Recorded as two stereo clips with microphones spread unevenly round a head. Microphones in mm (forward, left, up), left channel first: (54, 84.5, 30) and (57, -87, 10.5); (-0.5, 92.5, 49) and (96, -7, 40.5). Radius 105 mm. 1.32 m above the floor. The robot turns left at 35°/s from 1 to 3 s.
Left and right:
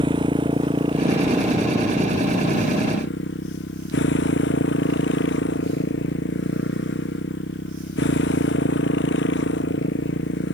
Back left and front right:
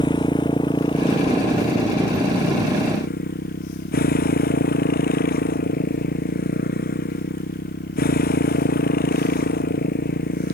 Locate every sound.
0.0 s a motorcycle: 160° right; by 10.5 s 130° left